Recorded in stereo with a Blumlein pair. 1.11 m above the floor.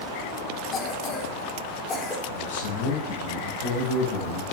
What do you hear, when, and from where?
0.7 s a cough: 25° left, 4 m
2.3 s a man speaking: 55° left, 9.5 m